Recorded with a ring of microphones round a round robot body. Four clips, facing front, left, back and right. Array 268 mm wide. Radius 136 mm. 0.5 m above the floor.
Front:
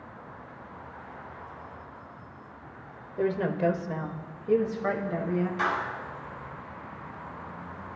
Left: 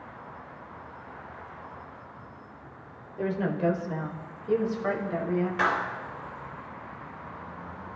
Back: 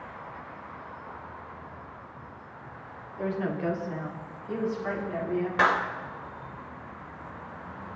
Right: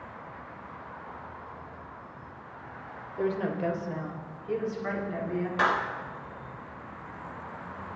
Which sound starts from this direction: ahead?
A woman speaking, at 3.2 s.